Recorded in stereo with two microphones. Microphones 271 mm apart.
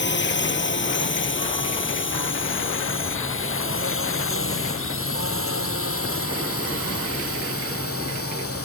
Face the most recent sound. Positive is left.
turn(degrees=60)  # may be behind; listen again after turning